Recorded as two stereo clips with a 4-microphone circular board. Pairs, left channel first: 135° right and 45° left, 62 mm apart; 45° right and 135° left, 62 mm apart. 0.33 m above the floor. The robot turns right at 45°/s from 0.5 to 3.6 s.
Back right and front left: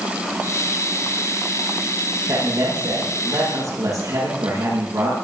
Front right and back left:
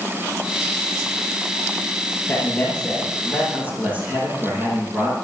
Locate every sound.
2.3 s a man speaking: 10° left, 7.5 m; by 5.1 s 70° left, 7.5 m